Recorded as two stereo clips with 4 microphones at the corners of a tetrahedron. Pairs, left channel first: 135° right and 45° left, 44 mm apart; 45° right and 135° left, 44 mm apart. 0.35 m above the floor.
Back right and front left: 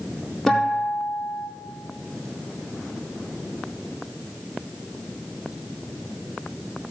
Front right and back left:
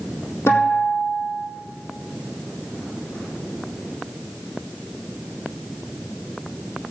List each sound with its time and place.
0.5 s a guitar: 40° right, 4 m